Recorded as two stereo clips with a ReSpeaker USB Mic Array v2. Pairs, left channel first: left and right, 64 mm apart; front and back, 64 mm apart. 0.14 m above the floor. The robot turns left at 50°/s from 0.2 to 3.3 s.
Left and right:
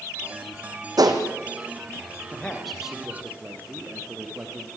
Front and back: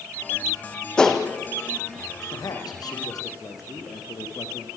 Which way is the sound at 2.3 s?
20° left.